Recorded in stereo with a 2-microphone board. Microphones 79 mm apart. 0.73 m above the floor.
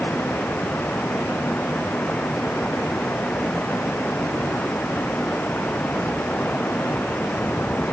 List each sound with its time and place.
0.0 s running water: 20° left (ahead or behind)